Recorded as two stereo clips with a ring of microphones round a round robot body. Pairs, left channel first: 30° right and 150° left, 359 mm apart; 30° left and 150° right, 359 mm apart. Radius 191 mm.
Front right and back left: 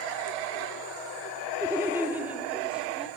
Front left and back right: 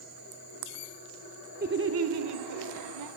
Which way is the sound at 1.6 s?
140° right.